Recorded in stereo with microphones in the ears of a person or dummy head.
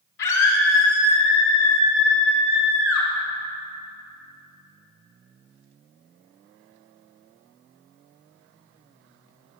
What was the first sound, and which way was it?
A scream, 75° left (ahead or behind).